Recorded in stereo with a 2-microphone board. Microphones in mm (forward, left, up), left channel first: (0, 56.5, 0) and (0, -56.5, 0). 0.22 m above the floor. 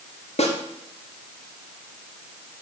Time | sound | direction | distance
0.4 | a snare drum | 75° left (ahead or behind) | 2.0 m